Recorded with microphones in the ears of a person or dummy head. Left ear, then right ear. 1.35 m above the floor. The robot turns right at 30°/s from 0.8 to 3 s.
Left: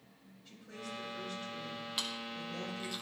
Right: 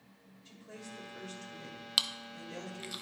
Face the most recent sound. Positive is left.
turn(degrees=-5)  # may be behind; listen again after turning